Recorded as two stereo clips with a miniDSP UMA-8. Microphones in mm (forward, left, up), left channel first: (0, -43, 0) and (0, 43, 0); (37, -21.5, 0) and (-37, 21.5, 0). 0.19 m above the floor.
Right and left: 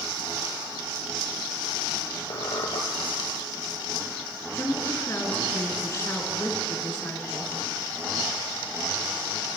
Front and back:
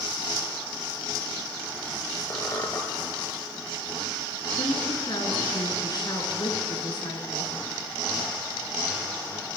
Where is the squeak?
85° right, 1.0 m.